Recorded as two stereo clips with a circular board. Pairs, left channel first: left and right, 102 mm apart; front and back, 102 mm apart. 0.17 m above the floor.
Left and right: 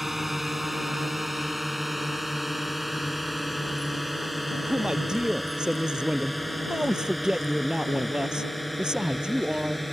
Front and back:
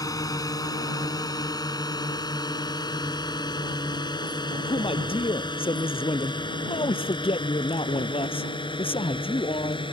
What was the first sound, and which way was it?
A drone, 5° right.